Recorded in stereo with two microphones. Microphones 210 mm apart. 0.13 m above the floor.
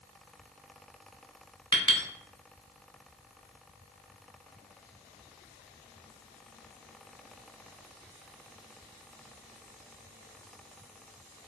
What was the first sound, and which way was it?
A clink, 20° left (ahead or behind).